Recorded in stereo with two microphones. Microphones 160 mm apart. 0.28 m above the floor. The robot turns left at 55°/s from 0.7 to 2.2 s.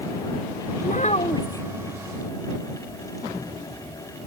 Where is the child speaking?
60° left; by 1.7 s 15° left.